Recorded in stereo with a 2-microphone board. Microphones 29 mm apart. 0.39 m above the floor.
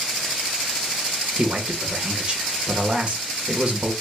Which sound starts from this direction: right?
A man speaking, at 1.4 s.